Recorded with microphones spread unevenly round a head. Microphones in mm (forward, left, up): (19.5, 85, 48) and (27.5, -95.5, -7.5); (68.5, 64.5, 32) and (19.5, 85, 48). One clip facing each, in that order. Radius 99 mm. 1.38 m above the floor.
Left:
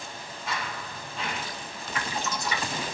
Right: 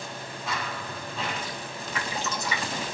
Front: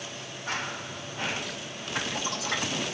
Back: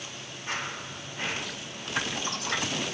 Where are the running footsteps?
80° right, 2.5 m.